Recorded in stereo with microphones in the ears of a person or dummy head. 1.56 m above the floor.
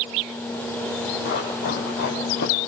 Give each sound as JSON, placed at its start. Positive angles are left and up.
{"t": 1.2, "sound": "running footsteps", "side_deg": 60, "distance_m": 5.0}